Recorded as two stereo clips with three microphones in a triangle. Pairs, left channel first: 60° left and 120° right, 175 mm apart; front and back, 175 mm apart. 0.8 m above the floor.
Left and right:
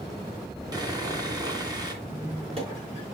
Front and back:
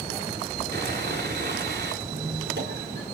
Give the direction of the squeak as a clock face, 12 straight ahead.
6 o'clock.